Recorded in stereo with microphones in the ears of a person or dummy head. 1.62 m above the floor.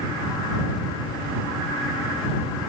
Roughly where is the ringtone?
No ringtone in this recording.